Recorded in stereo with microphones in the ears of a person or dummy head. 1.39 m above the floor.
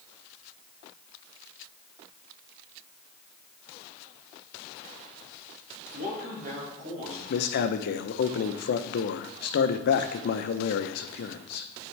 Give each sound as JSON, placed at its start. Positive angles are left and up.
{"t": 5.9, "sound": "a man speaking", "side_deg": -55, "distance_m": 3.0}
{"t": 7.3, "sound": "a man speaking", "side_deg": 65, "distance_m": 0.7}